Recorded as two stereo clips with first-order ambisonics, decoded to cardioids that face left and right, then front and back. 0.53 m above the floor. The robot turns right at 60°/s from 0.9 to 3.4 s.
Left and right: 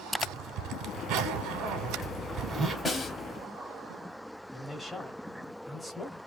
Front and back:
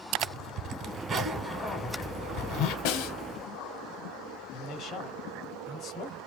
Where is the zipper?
125° right, 0.7 m; by 2.8 s 15° right, 0.7 m.